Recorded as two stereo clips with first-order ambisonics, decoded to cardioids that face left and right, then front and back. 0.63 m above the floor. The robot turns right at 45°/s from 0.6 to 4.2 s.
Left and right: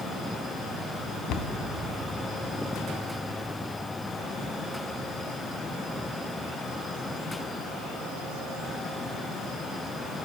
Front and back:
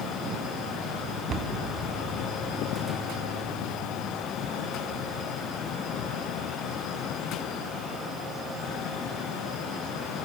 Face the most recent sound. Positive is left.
turn(degrees=-110)